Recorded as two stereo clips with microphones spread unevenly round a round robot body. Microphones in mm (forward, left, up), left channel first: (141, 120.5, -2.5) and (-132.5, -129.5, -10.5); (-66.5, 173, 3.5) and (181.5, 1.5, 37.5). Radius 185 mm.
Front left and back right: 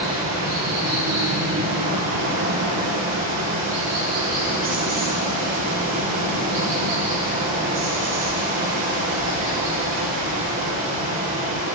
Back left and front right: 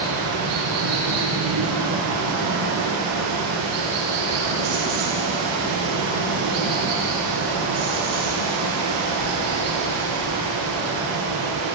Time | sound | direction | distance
0.0 | running water | 70° right | 9 m